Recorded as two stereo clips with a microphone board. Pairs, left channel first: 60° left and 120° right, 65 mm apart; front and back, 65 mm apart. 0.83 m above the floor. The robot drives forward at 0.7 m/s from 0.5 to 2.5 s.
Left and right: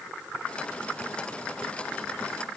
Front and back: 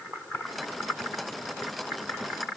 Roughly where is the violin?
No violin in this recording.